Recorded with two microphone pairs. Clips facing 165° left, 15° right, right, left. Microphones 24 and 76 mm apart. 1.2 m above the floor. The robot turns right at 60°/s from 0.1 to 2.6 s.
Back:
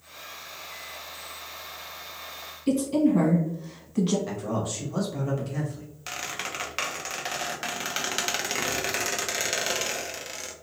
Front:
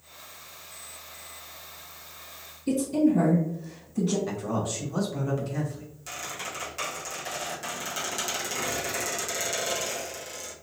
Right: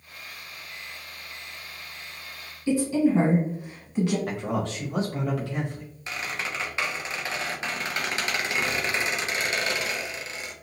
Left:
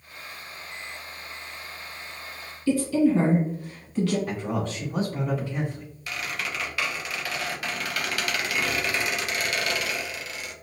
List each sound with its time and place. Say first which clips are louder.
2.7 s a woman speaking: back 1 dB, left 1 dB; 155° right, 1.6 m
4.3 s a man speaking: even, even; 105° right, 1.2 m
6.1 s a squeak: back 3 dB, even; 155° right, 0.6 m